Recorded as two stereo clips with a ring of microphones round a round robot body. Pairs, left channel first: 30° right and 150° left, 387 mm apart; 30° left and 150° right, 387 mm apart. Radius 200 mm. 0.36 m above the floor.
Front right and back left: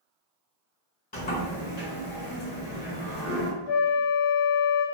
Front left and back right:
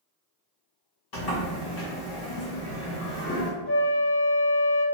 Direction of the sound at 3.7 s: 10° right.